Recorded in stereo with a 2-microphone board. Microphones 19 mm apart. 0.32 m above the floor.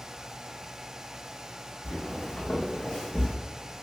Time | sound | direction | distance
1.8 | footsteps | 80° left | 1.6 m